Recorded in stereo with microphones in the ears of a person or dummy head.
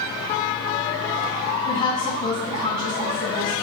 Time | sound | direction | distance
1.7 | a woman speaking | 35° left (ahead or behind) | 2.5 m